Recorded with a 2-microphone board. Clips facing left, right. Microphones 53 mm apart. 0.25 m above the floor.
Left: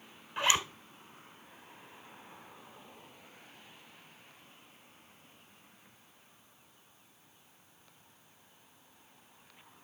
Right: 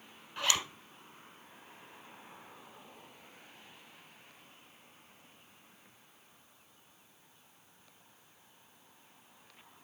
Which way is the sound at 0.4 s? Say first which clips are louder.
Left 4 dB; 25° left (ahead or behind).